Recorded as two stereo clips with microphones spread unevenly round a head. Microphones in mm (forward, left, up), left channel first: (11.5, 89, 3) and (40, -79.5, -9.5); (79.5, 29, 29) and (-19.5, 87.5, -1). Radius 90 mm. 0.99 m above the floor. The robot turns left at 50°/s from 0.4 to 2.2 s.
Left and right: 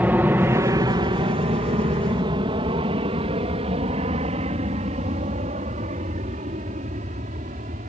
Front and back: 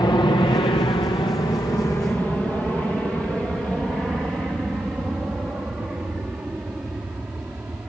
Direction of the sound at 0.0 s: 25° right.